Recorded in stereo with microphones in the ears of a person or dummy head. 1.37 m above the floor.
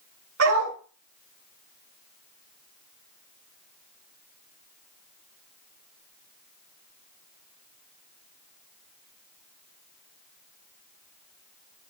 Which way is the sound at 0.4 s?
80° right.